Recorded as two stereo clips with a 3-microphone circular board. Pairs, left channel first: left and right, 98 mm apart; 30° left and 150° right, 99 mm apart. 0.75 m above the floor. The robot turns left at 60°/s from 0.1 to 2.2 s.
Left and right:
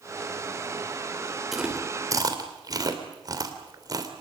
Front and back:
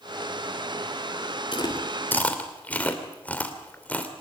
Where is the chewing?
5° right, 2.5 m; by 4.2 s 45° right, 2.5 m.